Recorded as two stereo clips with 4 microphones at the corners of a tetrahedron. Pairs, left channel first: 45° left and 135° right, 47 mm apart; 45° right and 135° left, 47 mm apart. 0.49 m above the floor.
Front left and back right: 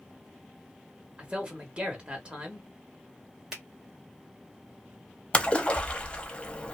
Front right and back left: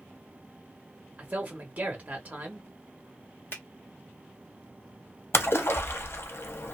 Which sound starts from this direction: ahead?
A splash, at 5.3 s.